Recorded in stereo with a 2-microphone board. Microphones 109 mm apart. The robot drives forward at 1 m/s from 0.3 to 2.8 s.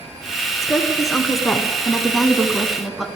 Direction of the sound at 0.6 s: Centre (ahead or behind).